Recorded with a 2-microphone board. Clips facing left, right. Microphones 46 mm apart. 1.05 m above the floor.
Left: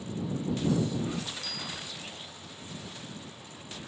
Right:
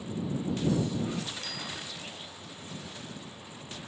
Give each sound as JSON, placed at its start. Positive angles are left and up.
{"t": 1.4, "sound": "a bicycle bell", "side_deg": -50}